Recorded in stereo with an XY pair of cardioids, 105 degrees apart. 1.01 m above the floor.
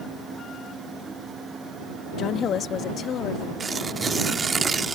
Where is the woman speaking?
60° left; by 3.5 s 65° left.